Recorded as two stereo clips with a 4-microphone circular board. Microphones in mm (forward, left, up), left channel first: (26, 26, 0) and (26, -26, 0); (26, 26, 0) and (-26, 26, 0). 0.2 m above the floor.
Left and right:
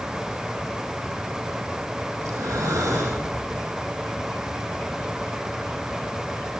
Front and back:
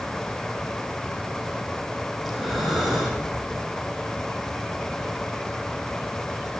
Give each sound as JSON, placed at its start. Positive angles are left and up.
{"t": 2.2, "sound": "breathing", "azimuth_deg": -95, "distance_m": 4.0}